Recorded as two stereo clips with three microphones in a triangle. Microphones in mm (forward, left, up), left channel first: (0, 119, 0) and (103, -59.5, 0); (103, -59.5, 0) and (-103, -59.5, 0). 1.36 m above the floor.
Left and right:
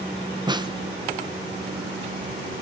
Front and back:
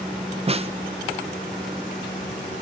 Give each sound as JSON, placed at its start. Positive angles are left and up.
{"t": 0.5, "sound": "a snare drum", "azimuth_deg": -125, "distance_m": 0.6}